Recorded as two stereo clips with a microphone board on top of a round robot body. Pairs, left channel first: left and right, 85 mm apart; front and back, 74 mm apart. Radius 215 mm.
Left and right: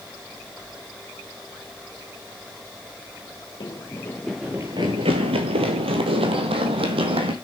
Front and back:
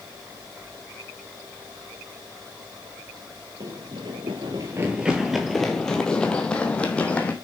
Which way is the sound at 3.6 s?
140° left.